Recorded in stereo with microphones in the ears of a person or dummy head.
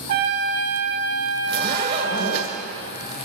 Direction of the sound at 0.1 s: 50° right (ahead or behind).